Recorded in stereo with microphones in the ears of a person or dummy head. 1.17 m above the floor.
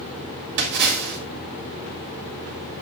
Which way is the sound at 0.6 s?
65° right (ahead or behind).